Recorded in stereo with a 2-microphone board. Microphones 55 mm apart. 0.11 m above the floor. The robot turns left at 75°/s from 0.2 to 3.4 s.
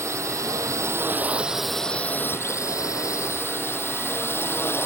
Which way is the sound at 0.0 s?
70° right.